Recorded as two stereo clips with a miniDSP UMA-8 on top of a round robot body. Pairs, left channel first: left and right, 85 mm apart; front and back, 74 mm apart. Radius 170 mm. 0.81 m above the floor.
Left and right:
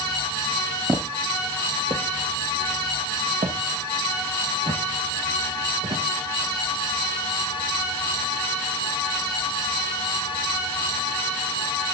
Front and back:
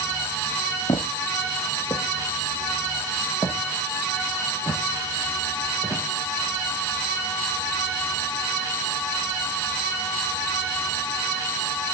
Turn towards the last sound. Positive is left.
turn(degrees=-95)